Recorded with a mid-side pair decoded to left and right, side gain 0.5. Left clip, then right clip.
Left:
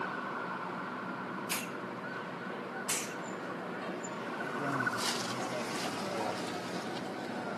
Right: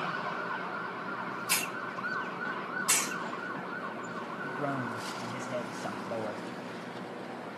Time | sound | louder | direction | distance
1.5 | a hiss | right 5 dB | 45° right | 0.7 m
4.4 | a man speaking | left 1 dB | 20° right | 1.3 m